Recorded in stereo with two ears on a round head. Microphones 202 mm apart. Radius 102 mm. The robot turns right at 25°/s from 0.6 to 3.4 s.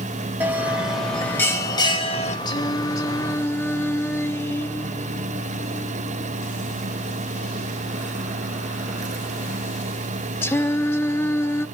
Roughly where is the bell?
Ahead.